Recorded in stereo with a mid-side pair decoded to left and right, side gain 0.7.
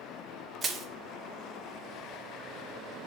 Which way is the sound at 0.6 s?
20° right.